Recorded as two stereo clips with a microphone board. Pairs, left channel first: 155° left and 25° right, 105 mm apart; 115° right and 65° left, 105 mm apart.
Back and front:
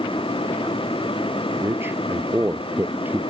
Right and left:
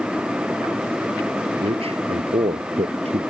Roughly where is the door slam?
I don't hear a door slam.